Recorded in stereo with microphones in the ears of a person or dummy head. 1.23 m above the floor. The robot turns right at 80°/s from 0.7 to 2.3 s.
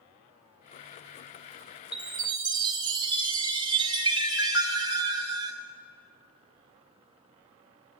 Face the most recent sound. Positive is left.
turn(degrees=-145)